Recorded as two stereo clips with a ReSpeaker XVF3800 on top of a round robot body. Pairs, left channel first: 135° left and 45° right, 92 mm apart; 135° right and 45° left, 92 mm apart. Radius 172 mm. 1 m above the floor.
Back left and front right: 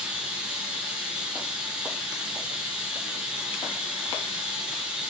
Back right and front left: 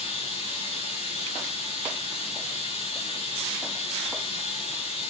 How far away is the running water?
About 1.7 m.